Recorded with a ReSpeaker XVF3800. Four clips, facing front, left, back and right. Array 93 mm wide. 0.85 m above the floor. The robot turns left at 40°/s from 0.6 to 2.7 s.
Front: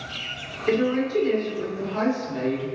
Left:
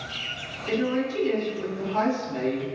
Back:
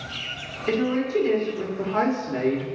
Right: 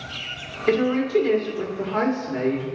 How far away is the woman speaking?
About 1.8 m.